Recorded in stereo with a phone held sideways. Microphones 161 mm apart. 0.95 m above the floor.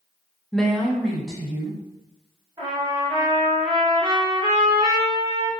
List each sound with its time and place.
0.5 s a woman speaking: 5° left (ahead or behind), 0.5 m; by 1.8 s centre (ahead or behind), 1.4 m
2.6 s a trumpet: 35° right (ahead or behind), 0.9 m